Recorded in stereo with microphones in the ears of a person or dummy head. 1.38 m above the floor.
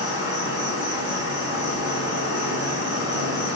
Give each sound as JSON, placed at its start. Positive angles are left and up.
{"t": 0.0, "sound": "an insect", "side_deg": -20, "distance_m": 1.5}